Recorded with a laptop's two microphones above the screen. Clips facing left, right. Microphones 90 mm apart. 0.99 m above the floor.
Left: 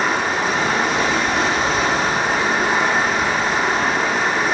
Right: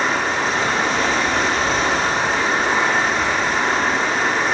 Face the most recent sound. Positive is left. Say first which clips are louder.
# even
turn(degrees=10)  # may be behind; listen again after turning